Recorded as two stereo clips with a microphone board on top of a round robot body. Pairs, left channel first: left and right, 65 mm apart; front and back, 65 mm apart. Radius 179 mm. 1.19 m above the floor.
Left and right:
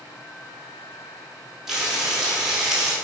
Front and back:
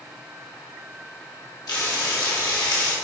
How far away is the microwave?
No microwave in this recording.